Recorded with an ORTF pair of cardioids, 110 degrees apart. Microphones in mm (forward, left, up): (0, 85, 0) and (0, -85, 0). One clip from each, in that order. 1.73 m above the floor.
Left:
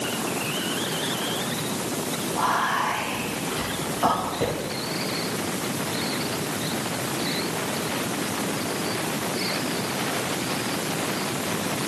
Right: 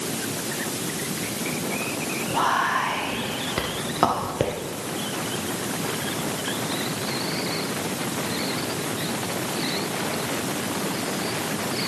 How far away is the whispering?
About 1.1 m.